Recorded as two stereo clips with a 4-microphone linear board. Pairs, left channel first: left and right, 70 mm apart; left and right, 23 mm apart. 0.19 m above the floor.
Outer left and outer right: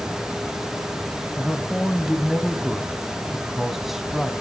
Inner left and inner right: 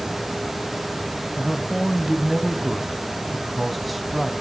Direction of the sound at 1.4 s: 5° right (ahead or behind).